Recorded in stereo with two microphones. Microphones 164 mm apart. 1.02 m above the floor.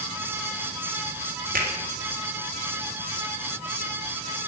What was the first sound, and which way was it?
A finger snap, 70° right (ahead or behind).